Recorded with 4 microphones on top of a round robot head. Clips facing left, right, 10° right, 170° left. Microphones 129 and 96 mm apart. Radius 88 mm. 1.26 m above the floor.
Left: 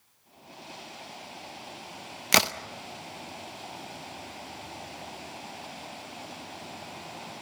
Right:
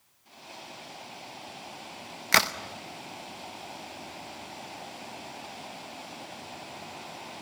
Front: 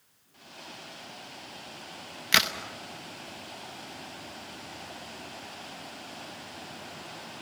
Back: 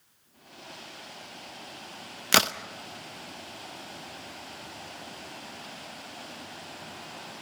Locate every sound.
2.3 s a crack: 150° left, 0.6 m